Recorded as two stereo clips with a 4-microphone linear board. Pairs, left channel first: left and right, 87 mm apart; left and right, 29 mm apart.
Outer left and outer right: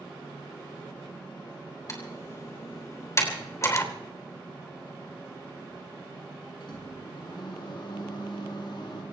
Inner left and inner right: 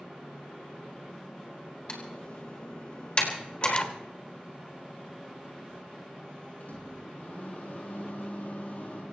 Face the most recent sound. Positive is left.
turn(degrees=60)  # may be behind; listen again after turning